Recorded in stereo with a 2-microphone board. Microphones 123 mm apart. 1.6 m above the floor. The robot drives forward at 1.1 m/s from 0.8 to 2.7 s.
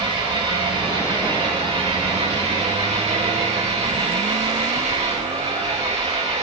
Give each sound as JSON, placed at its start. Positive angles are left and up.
{"t": 0.0, "sound": "an engine running", "side_deg": -45, "distance_m": 6.5}